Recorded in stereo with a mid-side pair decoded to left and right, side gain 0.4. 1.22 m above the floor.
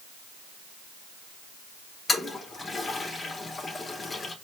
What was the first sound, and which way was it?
A toilet flushing, 40° left.